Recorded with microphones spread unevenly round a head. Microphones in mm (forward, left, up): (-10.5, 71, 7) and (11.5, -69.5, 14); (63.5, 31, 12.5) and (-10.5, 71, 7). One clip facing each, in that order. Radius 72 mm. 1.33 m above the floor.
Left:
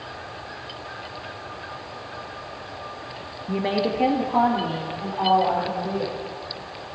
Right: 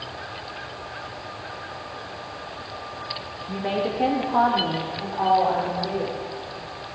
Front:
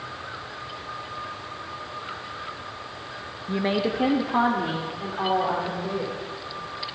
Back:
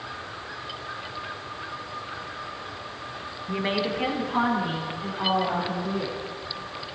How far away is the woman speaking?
About 1.0 m.